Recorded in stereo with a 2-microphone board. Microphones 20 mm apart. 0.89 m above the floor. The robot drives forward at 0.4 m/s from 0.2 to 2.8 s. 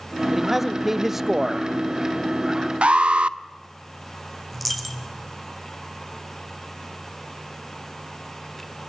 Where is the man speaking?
10° right (ahead or behind), 0.9 m; by 1.7 s 20° right (ahead or behind), 0.5 m.